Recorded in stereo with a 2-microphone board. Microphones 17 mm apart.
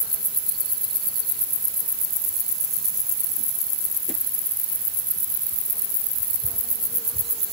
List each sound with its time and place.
Only background noise.